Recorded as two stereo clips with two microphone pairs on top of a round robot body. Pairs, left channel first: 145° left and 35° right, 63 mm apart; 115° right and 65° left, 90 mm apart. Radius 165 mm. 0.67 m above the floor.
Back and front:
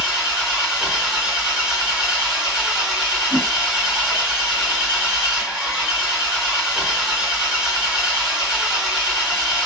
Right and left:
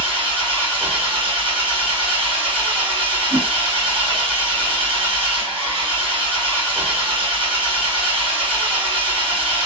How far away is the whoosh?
About 1.8 m.